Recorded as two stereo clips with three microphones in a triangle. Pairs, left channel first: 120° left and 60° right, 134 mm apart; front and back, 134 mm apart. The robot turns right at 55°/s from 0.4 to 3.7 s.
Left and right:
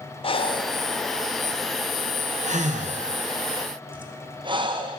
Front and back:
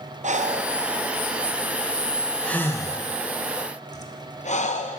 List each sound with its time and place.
0.2 s breathing: 165° left, 0.6 m; by 5.0 s 15° right, 0.6 m